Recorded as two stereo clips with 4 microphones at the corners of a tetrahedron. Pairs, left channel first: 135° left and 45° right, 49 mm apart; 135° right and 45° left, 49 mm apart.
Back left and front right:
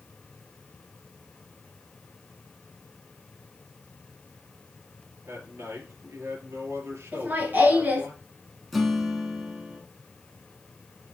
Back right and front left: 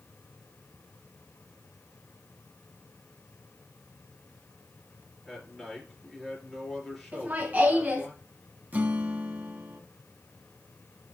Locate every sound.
5.2 s a man speaking: 40° right, 3.5 m
7.1 s laughter: straight ahead, 1.7 m
8.7 s a guitar: 50° left, 1.2 m